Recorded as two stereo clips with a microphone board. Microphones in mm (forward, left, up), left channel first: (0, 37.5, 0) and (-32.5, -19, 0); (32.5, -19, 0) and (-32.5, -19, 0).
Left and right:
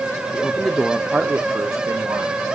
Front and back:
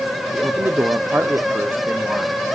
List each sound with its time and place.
0.3 s a man speaking: 125° left, 1.3 m; by 2.4 s 110° right, 1.7 m